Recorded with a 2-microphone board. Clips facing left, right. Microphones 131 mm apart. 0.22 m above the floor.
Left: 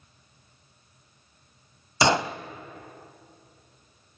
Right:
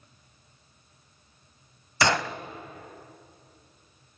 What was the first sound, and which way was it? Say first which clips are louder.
A gunshot: left 3 dB; 20° left (ahead or behind).